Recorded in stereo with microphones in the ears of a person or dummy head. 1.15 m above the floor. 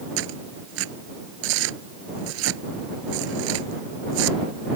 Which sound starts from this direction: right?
Tearing paper, at 0.2 s.